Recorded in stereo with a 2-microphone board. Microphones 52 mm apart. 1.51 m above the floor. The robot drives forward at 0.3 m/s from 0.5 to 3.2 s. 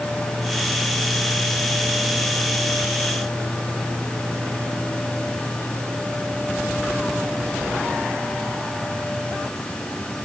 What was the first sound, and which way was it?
Only background noise.